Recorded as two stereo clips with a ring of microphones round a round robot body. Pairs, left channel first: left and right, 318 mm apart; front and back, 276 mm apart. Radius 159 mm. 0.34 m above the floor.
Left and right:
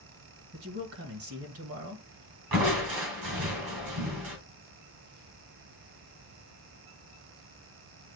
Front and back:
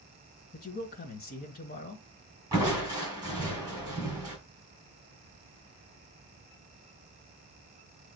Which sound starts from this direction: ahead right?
A man speaking, at 0.5 s.